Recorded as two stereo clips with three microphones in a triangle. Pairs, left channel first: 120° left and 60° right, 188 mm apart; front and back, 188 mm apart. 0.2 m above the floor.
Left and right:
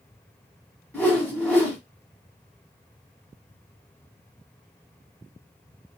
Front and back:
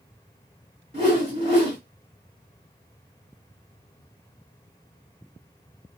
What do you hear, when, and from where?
0.9 s a whoosh: 165° right, 1.5 m